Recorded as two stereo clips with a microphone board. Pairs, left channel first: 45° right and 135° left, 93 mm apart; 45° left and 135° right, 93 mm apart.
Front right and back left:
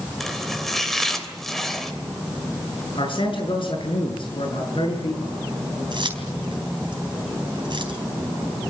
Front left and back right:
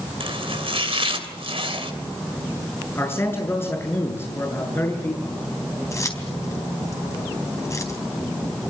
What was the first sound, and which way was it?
Chopping, 130° right.